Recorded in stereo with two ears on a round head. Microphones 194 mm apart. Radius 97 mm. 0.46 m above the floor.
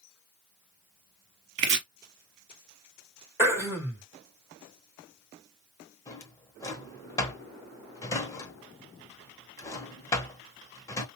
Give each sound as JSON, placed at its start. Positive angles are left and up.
{"t": 1.6, "sound": "chopping", "side_deg": -55, "distance_m": 1.0}
{"t": 3.4, "sound": "throat clearing", "side_deg": -10, "distance_m": 1.8}
{"t": 6.1, "sound": "a drawer", "side_deg": 15, "distance_m": 0.8}